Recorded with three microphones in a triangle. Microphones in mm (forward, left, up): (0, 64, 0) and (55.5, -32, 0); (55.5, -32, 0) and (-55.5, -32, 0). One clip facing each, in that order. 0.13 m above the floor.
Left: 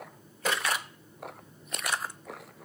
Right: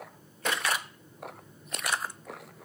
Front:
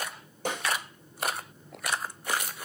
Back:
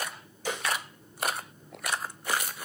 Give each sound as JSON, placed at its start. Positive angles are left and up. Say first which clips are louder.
{"t": 0.5, "sound": "a snare drum", "louder": "left 1 dB, front 1 dB", "azimuth_deg": 35, "distance_m": 5.5}